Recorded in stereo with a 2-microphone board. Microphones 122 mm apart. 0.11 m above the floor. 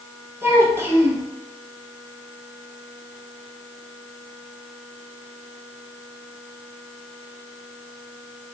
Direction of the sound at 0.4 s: 20° right (ahead or behind).